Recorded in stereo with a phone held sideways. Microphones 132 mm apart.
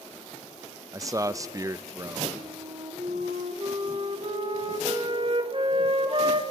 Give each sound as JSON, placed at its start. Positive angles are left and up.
{"t": 0.9, "sound": "a man speaking", "side_deg": -25, "distance_m": 0.5}
{"t": 2.4, "sound": "a flute", "side_deg": -45, "distance_m": 1.2}